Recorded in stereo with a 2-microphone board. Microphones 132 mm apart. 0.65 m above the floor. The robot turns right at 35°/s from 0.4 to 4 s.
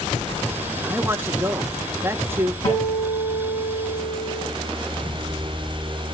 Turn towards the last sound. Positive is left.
turn(degrees=-165)